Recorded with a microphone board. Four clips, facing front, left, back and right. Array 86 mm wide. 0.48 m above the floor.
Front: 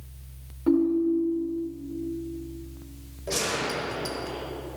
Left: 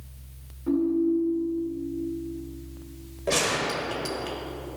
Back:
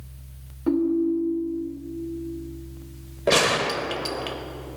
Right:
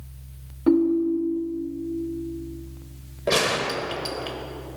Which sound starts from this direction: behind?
A gunshot, at 3.3 s.